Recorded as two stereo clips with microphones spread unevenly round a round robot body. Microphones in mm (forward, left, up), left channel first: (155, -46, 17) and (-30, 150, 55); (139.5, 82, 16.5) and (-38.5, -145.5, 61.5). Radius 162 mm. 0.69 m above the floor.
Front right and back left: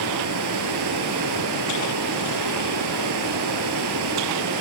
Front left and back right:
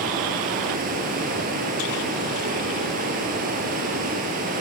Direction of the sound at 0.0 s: 170° left.